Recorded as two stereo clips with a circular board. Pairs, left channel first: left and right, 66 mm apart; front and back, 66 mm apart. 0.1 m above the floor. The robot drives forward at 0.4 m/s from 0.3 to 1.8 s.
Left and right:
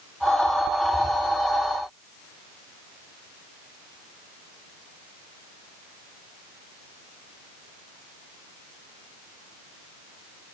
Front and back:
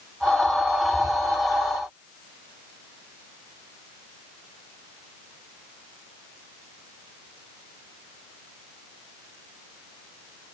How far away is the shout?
No shout in this recording.